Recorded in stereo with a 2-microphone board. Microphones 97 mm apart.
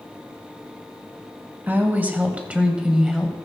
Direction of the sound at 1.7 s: 20° right (ahead or behind).